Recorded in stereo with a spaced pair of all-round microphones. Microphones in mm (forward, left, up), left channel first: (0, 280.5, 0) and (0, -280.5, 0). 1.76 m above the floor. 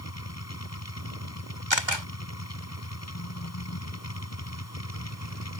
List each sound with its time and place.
0.0 s a machine running: 25° left (ahead or behind)
1.7 s a camera shutter: 50° right (ahead or behind)